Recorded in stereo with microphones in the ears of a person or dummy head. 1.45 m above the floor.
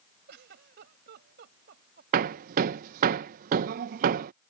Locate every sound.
0.3 s a giggle: 65° right (ahead or behind)
2.1 s hammering: 50° right (ahead or behind)